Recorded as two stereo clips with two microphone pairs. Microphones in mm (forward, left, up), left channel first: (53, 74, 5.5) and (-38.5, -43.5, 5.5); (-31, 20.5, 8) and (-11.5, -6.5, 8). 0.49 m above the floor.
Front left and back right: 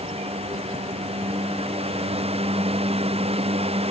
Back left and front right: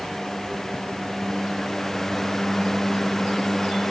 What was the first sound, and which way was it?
Only background noise.